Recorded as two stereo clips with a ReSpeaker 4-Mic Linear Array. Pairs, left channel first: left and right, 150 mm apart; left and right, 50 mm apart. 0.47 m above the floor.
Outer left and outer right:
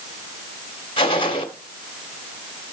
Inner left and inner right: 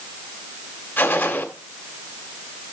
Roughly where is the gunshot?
Left.